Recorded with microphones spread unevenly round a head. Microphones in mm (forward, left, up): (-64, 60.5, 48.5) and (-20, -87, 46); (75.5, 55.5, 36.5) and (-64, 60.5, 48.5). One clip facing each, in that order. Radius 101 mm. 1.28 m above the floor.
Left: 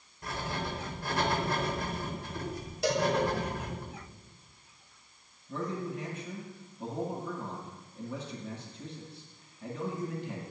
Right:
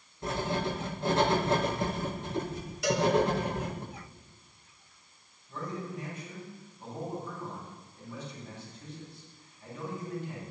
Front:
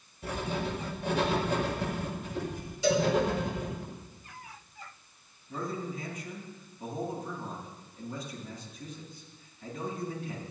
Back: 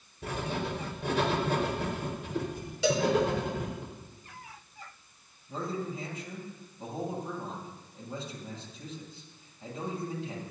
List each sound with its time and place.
0.2 s writing: 140° right, 5.5 m
2.8 s a cowbell: 165° left, 4.5 m
5.5 s a man speaking: 115° left, 9.5 m